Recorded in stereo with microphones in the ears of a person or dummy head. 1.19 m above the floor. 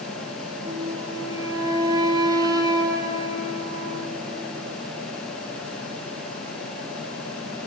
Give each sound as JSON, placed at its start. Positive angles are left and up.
{"t": 0.6, "sound": "a flute", "side_deg": -15, "distance_m": 1.2}